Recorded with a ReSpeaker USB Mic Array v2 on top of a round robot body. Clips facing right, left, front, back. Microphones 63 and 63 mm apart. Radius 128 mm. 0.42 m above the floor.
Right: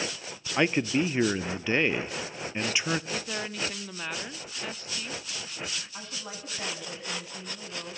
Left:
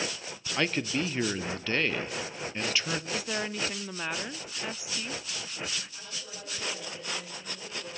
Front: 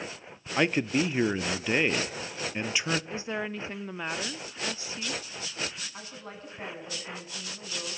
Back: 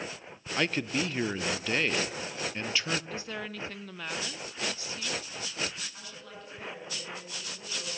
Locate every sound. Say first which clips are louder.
0.6 s a man speaking: right 4 dB, front 4 dB; 45° right, 0.8 m
3.1 s a woman speaking: left 1 dB, front 4 dB; 20° left, 0.7 m
5.9 s a woman speaking: right 3 dB, front 3 dB; 55° right, 6 m